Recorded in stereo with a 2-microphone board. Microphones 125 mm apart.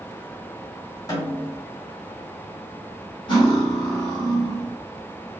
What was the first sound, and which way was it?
A snare drum, 30° left (ahead or behind).